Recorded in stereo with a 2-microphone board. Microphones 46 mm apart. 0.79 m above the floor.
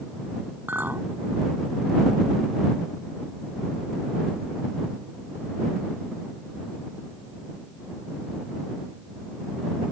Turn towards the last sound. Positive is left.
turn(degrees=-45)  # may be behind; listen again after turning